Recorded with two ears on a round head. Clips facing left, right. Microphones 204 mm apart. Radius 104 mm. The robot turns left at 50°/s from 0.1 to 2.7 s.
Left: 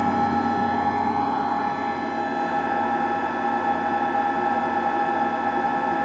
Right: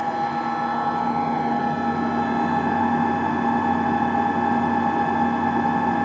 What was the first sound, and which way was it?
An engine running, 50° left.